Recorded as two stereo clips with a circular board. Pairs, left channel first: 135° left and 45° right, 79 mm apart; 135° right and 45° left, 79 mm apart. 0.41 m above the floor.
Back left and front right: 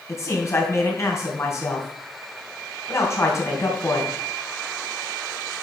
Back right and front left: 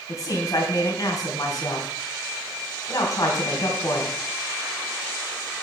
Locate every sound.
0.1 s a man speaking: 175° right, 3 m